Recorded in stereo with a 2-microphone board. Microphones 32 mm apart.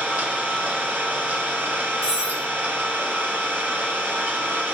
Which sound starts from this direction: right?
An engine running, at 0.0 s.